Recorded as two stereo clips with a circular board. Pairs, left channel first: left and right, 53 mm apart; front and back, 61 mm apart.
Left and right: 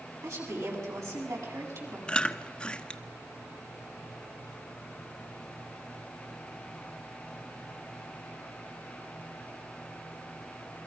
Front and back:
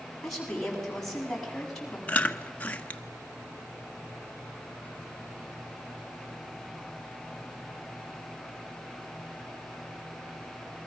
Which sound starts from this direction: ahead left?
Chewing, at 2.1 s.